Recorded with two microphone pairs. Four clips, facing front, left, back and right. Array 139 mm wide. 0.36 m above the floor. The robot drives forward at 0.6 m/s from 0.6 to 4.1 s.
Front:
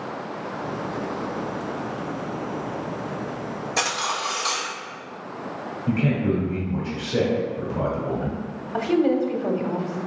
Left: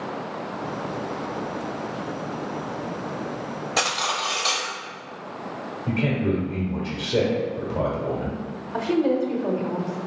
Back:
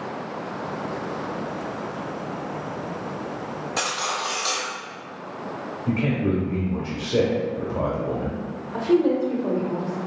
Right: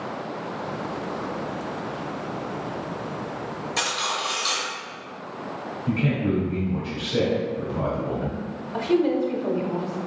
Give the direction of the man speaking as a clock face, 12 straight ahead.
8 o'clock.